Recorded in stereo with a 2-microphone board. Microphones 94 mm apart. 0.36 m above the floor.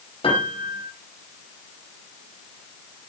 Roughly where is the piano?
Left.